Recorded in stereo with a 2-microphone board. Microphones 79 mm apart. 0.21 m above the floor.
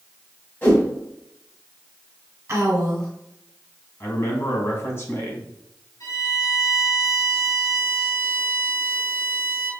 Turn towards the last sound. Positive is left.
turn(degrees=50)  # may be behind; listen again after turning